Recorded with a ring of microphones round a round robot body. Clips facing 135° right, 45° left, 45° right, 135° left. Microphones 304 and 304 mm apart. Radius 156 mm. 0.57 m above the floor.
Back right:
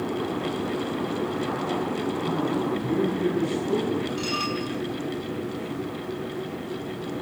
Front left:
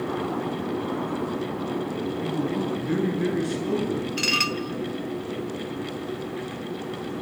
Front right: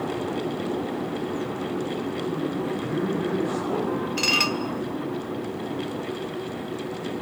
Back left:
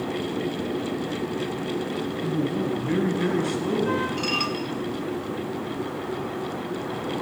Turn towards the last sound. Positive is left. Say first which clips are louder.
# even, front right 1 dB
turn(degrees=5)